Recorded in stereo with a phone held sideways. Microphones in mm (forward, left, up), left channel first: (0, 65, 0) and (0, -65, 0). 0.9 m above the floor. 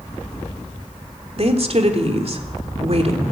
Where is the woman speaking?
50° right (ahead or behind), 3 m.